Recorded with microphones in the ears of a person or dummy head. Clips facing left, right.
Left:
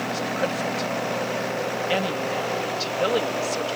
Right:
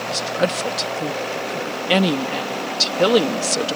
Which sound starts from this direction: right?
A woman speaking, at 0.1 s.